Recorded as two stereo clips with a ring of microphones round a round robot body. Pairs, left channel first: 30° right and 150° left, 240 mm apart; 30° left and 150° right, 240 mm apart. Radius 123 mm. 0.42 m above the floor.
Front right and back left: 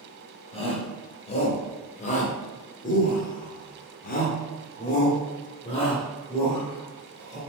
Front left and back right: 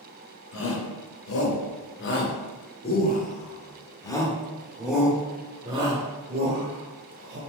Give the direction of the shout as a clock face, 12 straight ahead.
11 o'clock.